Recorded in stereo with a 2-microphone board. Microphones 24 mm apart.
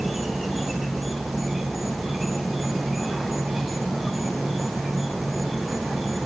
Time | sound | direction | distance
0.0 | an insect | 10° right (ahead or behind) | 3 m